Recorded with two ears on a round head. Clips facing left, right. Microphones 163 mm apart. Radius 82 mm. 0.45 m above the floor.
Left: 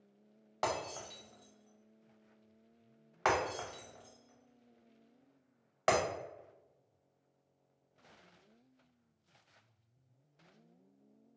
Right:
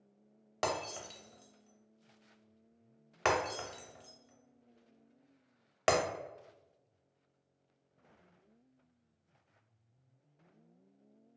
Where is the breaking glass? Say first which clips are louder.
Right 1 dB; 35° right (ahead or behind), 0.7 m.